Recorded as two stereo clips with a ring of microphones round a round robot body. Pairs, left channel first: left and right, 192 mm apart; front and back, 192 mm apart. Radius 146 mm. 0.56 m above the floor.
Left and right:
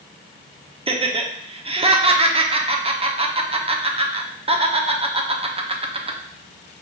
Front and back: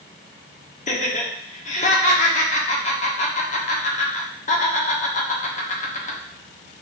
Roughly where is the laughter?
Ahead right.